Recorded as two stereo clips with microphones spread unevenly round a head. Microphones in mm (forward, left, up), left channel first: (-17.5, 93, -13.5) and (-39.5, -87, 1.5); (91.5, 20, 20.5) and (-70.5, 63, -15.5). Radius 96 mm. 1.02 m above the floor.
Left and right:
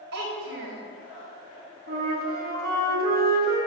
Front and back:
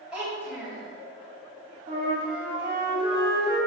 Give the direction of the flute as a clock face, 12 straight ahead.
4 o'clock.